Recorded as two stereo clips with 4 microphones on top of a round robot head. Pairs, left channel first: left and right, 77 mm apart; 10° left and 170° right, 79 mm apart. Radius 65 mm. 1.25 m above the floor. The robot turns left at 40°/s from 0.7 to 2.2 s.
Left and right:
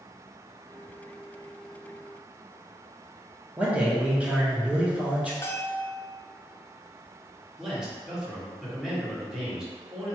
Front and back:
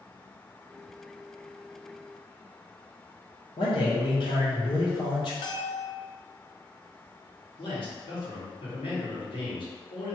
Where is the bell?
30° left, 0.7 m.